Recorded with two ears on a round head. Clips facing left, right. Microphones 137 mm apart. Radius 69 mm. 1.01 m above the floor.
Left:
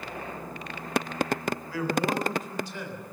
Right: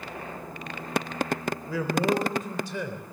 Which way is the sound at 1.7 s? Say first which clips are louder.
Right 3 dB; 80° right.